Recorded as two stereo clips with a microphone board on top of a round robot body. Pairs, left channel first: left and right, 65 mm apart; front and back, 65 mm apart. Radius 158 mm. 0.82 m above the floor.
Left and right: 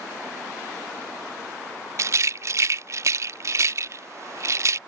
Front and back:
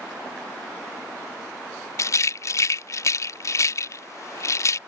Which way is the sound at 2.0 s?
45° right.